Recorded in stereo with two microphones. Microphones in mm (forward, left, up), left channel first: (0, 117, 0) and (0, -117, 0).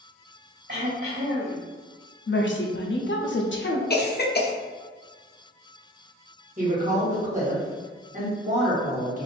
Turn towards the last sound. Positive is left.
turn(degrees=-35)  # may be behind; listen again after turning